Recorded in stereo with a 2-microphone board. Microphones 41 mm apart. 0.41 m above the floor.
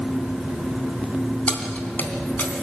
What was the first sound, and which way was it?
Keys jangling, 40° left (ahead or behind).